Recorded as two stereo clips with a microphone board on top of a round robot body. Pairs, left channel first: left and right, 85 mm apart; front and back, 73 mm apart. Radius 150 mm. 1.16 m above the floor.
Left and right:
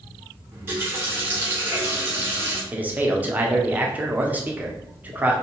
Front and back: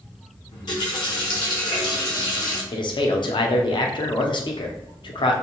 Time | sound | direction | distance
0.5 | a running tap | 25° right | 0.6 m
2.7 | a man speaking | 20° right | 0.5 m